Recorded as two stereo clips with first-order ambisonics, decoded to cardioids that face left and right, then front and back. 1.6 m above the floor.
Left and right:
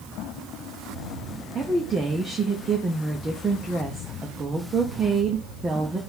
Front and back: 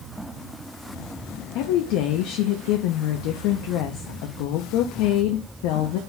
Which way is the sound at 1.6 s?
20° right.